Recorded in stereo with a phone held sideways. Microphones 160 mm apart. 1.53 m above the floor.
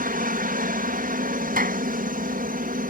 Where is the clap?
65° right (ahead or behind).